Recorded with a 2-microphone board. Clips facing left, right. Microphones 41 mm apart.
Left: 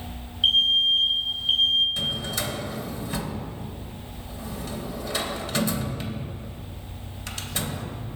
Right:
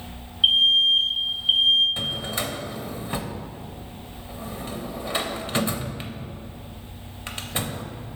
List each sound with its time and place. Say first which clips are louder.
0.4 s an alarm: right 2 dB; 15° right (ahead or behind), 0.5 m
2.0 s a drawer: even; 25° right (ahead or behind), 0.5 m